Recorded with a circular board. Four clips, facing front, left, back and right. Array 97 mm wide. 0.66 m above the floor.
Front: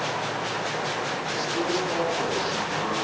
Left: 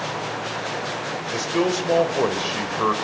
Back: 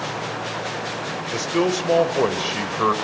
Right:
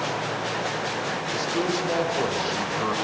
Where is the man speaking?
150° left, 3 m.